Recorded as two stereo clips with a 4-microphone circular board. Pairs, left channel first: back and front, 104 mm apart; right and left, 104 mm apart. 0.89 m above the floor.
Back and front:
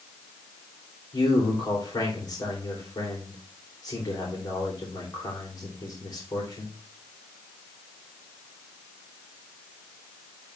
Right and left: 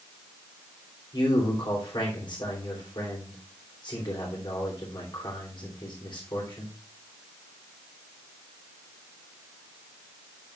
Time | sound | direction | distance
1.1 | a man speaking | 130° right | 2.5 m